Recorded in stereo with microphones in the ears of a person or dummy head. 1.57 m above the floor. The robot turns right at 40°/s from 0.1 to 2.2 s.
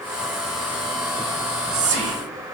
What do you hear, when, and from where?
1.4 s whispering: 40° right (ahead or behind), 0.8 m; by 2.2 s 65° right (ahead or behind), 0.8 m